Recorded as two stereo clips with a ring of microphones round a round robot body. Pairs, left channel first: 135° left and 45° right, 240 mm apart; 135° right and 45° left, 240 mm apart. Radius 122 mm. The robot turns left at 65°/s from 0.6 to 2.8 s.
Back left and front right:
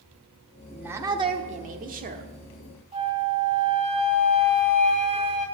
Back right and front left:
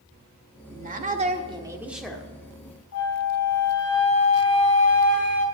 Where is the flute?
110° right, 3 m.